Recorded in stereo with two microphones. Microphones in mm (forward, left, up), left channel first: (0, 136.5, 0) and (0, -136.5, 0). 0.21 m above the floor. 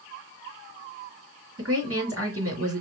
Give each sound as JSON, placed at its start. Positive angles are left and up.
{"t": 1.6, "sound": "a woman speaking", "side_deg": -55, "distance_m": 2.5}